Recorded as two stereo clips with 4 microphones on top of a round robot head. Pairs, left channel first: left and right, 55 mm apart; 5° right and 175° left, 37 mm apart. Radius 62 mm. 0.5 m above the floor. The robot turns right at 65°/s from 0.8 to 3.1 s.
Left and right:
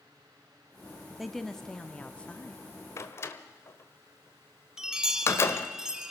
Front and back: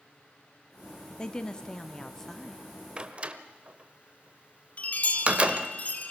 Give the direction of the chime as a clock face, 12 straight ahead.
1 o'clock.